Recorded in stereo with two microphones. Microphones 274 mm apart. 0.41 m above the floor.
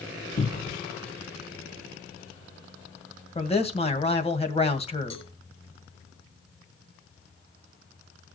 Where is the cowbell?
85° left, 2.0 m.